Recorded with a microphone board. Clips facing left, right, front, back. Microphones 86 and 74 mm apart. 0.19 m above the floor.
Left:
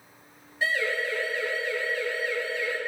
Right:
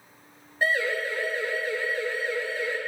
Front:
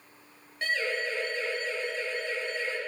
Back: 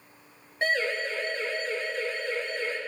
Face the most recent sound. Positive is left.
turn(degrees=-145)